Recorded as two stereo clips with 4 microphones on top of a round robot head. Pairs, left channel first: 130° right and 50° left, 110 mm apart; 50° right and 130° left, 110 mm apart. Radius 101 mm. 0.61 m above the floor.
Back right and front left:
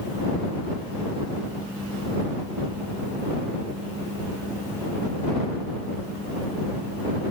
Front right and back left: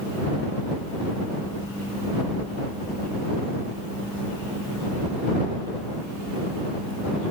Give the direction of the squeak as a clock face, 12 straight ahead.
No squeak in this recording.